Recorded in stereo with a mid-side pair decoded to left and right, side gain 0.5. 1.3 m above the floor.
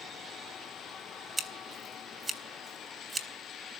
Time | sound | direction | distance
1.4 | scissors | 25° right | 4 m